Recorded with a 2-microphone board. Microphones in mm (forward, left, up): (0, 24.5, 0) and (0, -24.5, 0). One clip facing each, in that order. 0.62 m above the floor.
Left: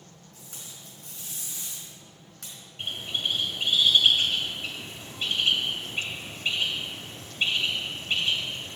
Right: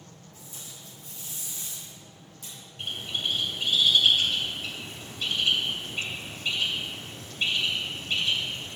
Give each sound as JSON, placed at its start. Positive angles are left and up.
{"t": 0.3, "sound": "tape being pulled", "side_deg": 75, "distance_m": 4.0}
{"t": 2.8, "sound": "a bird", "side_deg": 25, "distance_m": 2.5}